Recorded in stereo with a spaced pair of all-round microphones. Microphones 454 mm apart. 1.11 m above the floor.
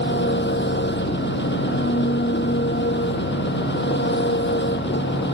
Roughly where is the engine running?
Left.